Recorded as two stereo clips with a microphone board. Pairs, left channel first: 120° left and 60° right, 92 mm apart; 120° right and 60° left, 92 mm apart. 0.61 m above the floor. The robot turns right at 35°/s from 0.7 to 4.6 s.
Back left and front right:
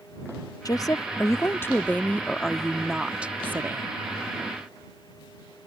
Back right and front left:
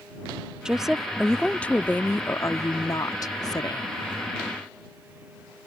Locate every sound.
0.7 s a woman speaking: 140° left; by 3.9 s 110° right